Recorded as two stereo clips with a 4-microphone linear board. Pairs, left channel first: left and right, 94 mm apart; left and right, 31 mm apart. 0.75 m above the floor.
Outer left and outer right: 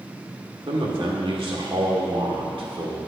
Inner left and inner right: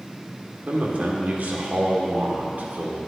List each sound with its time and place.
0.7 s a man speaking: 65° right (ahead or behind), 1.6 m